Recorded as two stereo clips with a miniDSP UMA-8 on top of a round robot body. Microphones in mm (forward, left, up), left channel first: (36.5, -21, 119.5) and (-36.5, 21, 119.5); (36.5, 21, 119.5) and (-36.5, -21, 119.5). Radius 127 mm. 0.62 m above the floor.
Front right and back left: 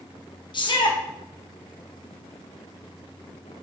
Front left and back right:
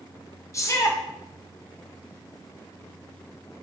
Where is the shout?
20° right, 2 m.